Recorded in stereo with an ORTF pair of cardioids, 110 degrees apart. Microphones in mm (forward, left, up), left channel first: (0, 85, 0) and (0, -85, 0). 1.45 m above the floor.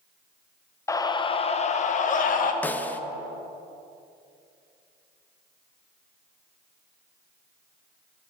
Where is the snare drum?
10° left, 0.5 m.